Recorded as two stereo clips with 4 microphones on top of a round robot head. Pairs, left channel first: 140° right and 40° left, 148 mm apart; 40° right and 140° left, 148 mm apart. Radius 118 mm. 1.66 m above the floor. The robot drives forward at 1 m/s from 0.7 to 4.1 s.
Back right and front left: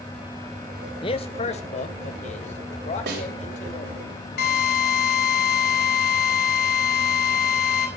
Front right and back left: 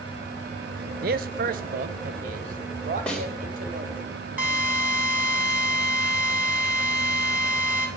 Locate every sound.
1.0 s a man speaking: 165° left, 0.6 m; by 4.0 s straight behind, 3.5 m
3.1 s a snare drum: 45° left, 4 m
4.4 s a drill: 140° right, 4.5 m